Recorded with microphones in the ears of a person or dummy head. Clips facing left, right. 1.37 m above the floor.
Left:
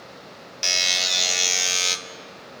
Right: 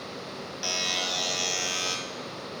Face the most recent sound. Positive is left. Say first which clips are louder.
# left 2 dB
turn(degrees=30)  # may be behind; listen again after turning